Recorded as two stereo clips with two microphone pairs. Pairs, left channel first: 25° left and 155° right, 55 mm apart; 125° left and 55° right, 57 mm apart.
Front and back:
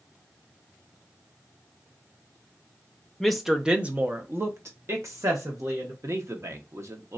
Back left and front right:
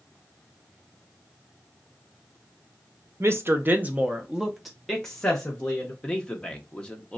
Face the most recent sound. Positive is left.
turn(degrees=-165)